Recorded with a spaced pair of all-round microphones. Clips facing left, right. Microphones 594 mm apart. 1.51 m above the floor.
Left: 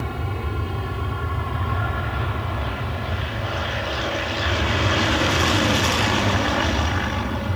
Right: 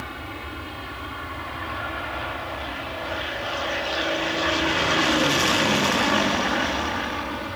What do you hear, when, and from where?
0.0 s an aircraft: 70° left (ahead or behind)